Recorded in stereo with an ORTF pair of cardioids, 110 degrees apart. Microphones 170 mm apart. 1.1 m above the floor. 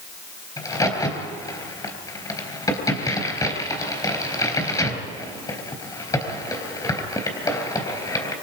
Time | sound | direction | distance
0.6 | a crack | 20° left | 4 m